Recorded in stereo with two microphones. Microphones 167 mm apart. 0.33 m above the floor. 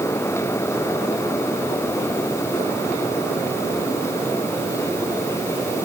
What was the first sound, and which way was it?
Only background noise.